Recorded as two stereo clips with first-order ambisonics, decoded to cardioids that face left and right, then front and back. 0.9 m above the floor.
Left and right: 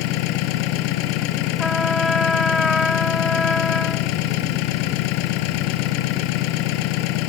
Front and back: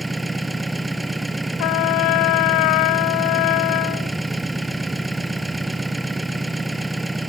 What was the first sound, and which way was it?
An engine running, 95° left.